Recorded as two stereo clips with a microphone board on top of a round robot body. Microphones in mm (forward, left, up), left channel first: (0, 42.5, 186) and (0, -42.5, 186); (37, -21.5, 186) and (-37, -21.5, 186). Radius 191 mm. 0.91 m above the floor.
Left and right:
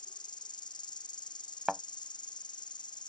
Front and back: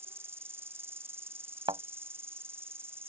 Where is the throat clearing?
I don't hear throat clearing.